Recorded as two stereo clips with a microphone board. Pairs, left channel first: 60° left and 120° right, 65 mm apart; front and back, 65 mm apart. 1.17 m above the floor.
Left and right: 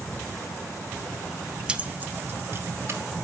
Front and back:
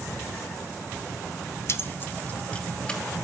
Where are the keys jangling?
45° right, 0.7 m; by 3.0 s 75° right, 1.7 m.